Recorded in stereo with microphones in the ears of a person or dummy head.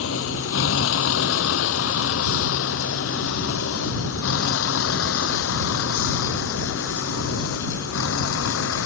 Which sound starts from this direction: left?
A vehicle, at 0.0 s.